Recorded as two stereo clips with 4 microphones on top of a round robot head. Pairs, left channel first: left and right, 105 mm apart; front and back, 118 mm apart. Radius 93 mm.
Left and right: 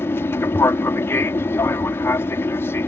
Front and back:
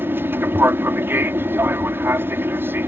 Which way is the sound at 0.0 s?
130° left.